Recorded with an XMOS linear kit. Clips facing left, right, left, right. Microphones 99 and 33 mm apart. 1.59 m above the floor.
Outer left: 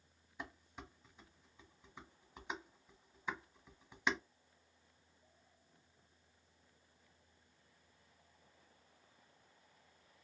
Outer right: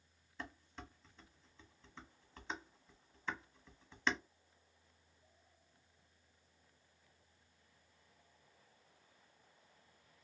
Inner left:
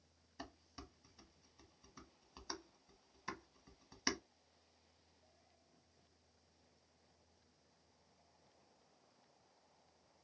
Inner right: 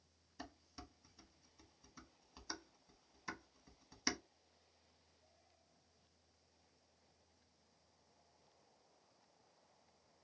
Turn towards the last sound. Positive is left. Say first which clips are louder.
# even, inner left 1 dB
turn(degrees=10)  # may be behind; listen again after turning